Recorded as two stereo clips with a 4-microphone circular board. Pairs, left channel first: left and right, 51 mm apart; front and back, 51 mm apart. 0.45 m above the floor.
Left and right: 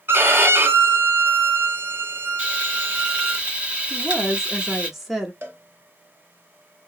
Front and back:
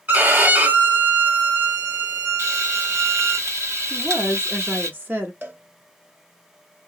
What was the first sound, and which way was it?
A violin, 135° right.